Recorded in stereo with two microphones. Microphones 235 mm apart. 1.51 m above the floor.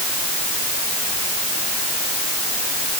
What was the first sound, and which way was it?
Only background noise.